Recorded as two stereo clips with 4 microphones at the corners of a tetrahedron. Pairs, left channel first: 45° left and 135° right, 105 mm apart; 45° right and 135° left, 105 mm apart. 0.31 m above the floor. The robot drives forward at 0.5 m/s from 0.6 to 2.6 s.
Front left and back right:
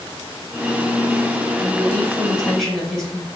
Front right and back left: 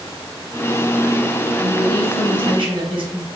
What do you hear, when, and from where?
1.6 s a woman speaking: 120° left, 2.5 m; by 3.3 s 130° left, 2.5 m